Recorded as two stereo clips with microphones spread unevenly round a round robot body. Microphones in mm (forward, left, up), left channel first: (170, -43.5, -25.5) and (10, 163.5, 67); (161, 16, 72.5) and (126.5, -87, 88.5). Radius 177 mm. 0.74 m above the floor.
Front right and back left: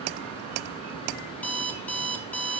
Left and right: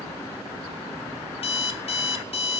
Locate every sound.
1.3 s an alarm clock: 35° left, 1.0 m